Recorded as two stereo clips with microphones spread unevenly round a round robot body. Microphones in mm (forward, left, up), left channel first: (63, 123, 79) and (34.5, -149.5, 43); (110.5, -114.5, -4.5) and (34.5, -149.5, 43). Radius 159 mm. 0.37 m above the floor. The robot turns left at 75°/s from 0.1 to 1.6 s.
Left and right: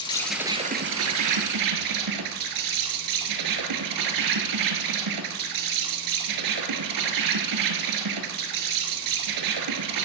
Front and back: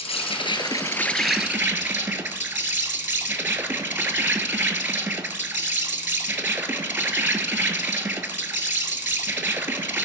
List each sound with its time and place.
0.0 s an insect: 10° left, 1.0 m; by 10.1 s 100° right, 1.0 m